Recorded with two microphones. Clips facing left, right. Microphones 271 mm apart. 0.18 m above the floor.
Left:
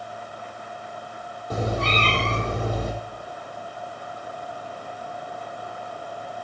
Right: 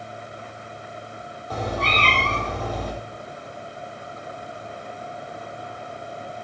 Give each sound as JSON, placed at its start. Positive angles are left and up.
{"t": 1.5, "sound": "a cat meowing", "side_deg": 25, "distance_m": 3.0}